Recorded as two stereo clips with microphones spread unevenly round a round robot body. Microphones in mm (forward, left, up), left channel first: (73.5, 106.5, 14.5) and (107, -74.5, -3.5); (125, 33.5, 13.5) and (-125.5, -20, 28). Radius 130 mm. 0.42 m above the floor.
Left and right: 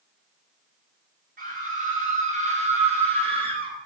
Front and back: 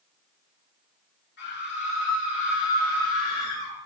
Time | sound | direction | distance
1.4 | a scream | 40° right | 6.5 m